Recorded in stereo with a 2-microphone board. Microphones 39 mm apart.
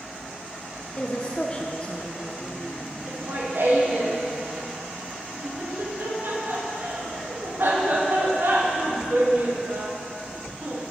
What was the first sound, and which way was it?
A woman speaking, 25° left (ahead or behind).